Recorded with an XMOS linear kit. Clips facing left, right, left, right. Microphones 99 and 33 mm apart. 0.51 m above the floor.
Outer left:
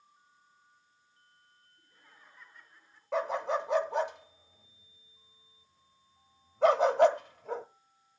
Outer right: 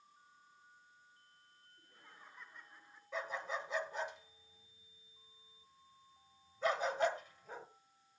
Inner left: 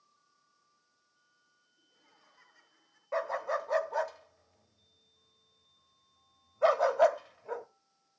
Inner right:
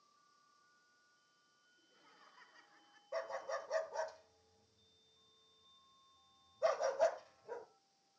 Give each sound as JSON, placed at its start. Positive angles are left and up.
{"t": 1.8, "sound": "laughter", "side_deg": -20, "distance_m": 7.0}
{"t": 3.1, "sound": "a dog barking", "side_deg": 75, "distance_m": 0.9}